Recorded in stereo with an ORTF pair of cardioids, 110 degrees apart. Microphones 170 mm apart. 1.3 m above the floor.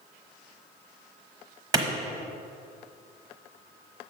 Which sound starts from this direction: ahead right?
A clap, at 1.7 s.